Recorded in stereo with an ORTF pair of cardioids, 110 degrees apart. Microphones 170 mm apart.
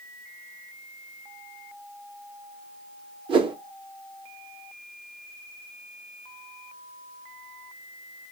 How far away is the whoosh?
About 0.8 m.